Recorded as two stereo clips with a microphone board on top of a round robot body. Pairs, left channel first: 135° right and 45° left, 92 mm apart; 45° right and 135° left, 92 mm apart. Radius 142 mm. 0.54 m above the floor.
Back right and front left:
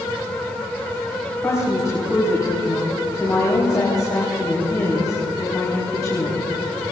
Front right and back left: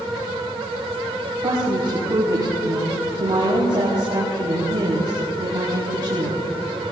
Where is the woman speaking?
170° left, 4.5 m.